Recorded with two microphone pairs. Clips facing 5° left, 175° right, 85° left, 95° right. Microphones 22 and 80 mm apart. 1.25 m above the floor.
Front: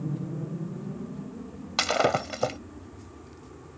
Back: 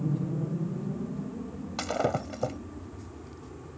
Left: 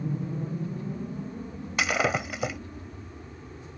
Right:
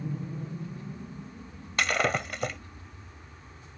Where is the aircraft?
130° left; by 3.8 s 110° left.